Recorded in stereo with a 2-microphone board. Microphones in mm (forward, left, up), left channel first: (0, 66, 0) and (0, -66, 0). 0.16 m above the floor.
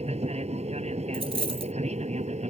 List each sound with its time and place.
0.0 s an aircraft: 55° right (ahead or behind); by 2.5 s 60° right (ahead or behind)
1.1 s a dropped coin: 45° right (ahead or behind)